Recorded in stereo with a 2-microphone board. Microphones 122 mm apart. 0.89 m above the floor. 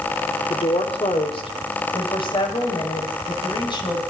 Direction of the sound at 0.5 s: 55° left (ahead or behind).